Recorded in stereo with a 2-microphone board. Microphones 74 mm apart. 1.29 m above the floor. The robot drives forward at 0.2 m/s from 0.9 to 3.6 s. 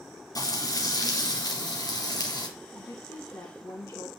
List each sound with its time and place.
0.3 s frying: 65° left (ahead or behind), 2.5 m; by 2.5 s 70° left (ahead or behind), 2.5 m
2.8 s a woman speaking: 70° left (ahead or behind), 1.5 m; by 4.1 s 75° left (ahead or behind), 1.5 m